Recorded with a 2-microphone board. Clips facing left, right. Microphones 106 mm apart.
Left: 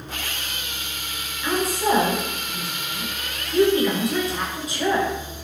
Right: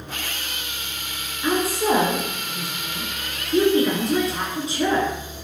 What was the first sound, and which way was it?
A woman speaking, 30° right (ahead or behind).